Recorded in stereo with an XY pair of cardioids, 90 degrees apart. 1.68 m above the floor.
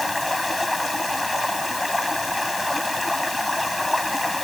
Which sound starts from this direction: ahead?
Running water, at 0.0 s.